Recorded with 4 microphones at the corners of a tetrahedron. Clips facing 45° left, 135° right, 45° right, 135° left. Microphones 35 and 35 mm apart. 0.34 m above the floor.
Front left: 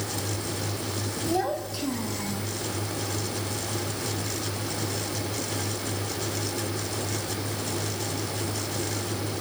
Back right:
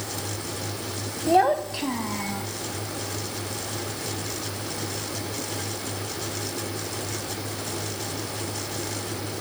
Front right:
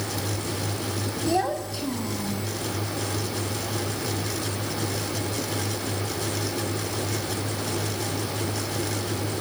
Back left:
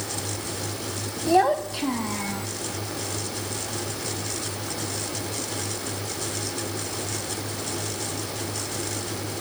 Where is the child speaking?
165° right, 1.3 m; by 2.5 s 175° left, 2 m.